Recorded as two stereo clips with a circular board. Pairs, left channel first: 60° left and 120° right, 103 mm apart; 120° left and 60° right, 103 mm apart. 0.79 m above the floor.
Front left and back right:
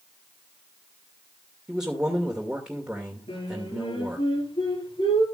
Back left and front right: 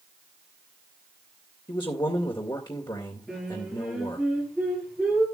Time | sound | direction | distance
1.7 | a man speaking | 160° left | 2 m
3.3 | singing | 30° left | 9.5 m